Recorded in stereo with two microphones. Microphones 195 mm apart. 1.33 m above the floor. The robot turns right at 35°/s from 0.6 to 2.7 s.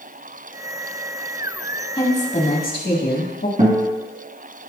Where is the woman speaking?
25° left (ahead or behind), 1.7 m; by 3.5 s 55° left (ahead or behind), 1.7 m.